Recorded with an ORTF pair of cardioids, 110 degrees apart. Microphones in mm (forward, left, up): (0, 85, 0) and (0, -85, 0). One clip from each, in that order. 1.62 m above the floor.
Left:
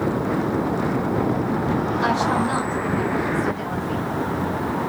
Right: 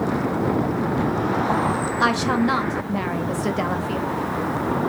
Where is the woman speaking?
50° right, 0.7 m.